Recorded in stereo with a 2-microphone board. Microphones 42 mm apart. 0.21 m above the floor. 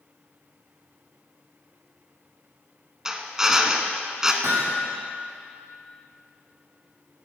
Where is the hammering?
80° right, 4.5 m.